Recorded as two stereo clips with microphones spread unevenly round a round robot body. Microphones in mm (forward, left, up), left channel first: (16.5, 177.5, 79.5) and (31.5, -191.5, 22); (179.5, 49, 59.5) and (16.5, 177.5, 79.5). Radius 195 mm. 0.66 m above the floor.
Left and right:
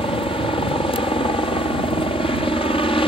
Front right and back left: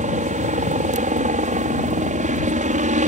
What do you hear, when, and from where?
0.0 s a helicopter: 170° left